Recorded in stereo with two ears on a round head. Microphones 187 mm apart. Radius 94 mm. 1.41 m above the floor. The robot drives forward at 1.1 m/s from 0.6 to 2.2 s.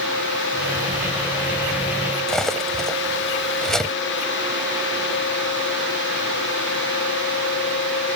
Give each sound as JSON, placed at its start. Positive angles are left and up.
{"t": 2.3, "sound": "cutlery clinking", "side_deg": 5}